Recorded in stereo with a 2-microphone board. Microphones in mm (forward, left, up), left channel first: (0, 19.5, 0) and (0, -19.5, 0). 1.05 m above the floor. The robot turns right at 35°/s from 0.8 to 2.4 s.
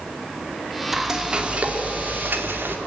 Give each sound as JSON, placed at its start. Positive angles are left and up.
{"t": 0.9, "sound": "frying", "azimuth_deg": -175, "distance_m": 2.5}